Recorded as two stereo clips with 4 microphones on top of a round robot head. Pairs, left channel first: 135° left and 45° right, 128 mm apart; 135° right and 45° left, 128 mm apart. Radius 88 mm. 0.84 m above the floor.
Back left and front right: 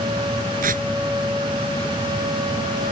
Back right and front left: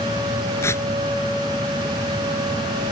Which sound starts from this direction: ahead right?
Tearing paper, at 0.6 s.